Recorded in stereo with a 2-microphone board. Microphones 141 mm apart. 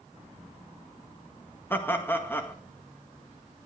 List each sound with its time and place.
1.7 s laughter: 15° left (ahead or behind), 1.7 m